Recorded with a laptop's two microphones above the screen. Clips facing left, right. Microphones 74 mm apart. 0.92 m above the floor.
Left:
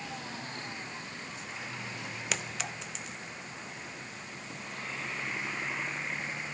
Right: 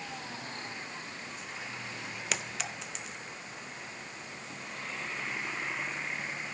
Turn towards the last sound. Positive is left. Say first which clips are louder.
# even
turn(degrees=0)  # may be behind; listen again after turning